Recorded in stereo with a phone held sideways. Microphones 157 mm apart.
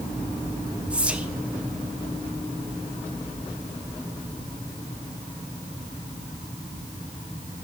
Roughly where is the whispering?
Centre.